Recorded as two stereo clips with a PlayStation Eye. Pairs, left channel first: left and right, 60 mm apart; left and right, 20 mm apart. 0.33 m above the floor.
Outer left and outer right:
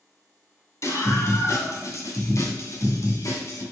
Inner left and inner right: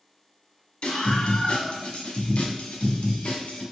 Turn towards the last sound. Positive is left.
turn(degrees=65)  # may be behind; listen again after turning